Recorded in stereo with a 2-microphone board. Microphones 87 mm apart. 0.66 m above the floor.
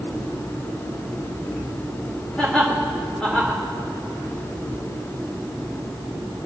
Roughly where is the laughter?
Centre.